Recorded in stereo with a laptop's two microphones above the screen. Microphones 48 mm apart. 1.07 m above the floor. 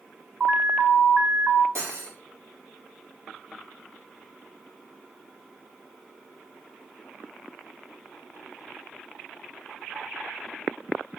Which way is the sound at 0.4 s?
25° right (ahead or behind).